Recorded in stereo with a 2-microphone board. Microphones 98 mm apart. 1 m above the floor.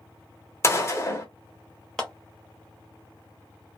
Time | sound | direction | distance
0.6 | a gunshot | 30° left (ahead or behind) | 0.7 m
2.0 | a clap | 10° left (ahead or behind) | 0.6 m